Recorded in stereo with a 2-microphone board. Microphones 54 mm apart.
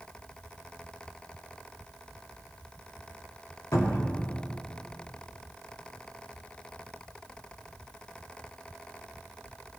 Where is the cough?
I don't hear a cough.